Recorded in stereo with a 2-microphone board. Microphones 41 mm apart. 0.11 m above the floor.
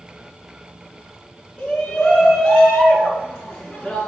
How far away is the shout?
About 1.8 m.